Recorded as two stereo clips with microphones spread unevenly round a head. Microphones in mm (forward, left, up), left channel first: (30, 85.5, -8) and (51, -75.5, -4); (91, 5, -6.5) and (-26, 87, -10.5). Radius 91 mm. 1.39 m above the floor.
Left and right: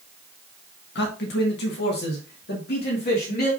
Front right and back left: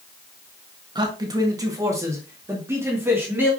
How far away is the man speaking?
About 1.5 m.